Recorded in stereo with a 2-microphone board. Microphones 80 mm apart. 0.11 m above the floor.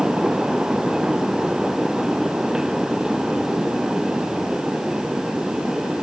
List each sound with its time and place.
Only background noise.